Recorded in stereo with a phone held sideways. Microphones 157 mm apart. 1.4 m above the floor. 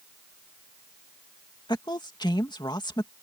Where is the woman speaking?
25° left (ahead or behind).